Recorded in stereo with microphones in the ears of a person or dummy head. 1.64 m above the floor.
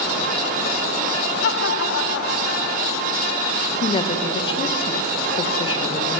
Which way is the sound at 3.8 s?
30° left (ahead or behind).